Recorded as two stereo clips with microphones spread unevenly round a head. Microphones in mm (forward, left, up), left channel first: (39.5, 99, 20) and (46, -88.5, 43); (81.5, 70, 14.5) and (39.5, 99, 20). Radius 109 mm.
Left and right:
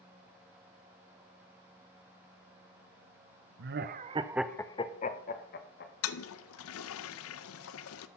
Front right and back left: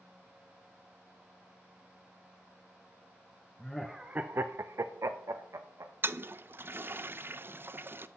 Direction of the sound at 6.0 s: 95° left.